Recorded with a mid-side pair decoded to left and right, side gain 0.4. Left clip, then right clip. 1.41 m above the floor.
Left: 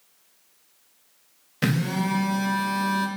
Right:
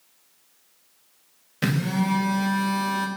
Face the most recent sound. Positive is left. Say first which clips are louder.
# even
turn(degrees=10)